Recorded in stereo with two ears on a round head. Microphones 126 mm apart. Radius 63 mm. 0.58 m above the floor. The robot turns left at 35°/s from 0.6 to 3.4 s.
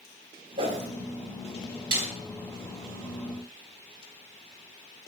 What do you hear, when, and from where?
0.6 s a whoosh: 40° right (ahead or behind), 2.0 m; by 0.9 s 45° right (ahead or behind), 2.0 m
1.9 s a snare drum: 65° right (ahead or behind), 4.5 m; by 2.1 s 70° right (ahead or behind), 4.5 m